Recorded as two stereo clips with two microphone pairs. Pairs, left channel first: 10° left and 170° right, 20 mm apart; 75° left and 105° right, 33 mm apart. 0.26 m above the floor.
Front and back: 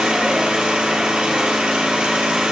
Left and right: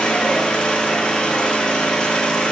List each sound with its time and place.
0.0 s an engine running: 145° left, 2.5 m